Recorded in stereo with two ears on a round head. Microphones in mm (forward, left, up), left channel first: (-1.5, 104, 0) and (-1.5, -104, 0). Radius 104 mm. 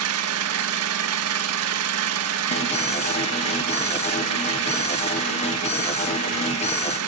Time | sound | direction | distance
0.0 | an engine running | 70° right (ahead or behind) | 1.9 m
2.5 | an alarm | 30° left (ahead or behind) | 2.5 m